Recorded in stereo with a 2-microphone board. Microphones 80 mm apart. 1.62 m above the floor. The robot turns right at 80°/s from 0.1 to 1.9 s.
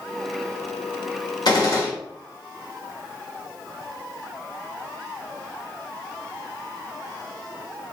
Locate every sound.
1.4 s a gunshot: 105° left, 2.5 m; by 1.9 s 140° left, 2.5 m